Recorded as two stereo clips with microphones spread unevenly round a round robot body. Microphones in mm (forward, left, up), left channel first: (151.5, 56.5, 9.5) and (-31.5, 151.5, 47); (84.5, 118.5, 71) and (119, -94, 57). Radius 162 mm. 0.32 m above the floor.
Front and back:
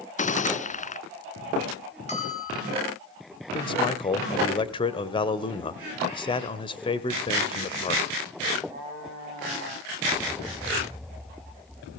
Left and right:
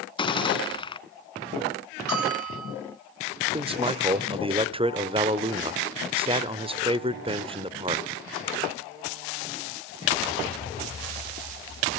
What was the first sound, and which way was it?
A gunshot, 30° left.